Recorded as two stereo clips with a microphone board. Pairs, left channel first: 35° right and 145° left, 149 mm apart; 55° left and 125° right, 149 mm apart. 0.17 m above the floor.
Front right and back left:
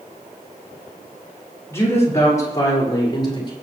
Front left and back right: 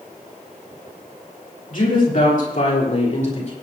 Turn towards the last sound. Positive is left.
turn(degrees=20)